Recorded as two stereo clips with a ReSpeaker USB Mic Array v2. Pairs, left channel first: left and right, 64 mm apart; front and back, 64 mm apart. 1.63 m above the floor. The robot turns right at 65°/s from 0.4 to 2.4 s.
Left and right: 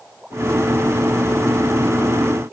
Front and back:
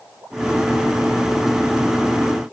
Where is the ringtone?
I don't hear a ringtone.